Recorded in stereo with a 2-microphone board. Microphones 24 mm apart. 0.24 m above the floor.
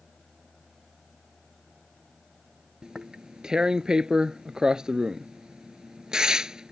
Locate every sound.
2.8 s tearing paper: 35° right (ahead or behind)